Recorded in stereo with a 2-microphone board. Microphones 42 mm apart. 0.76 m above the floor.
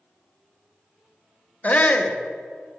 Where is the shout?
35° left (ahead or behind), 0.7 m.